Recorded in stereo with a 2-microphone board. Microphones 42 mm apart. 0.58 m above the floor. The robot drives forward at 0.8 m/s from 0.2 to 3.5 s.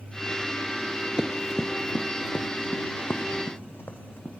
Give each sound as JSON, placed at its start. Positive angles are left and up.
{"t": 1.2, "sound": "running footsteps", "side_deg": -25, "distance_m": 0.5}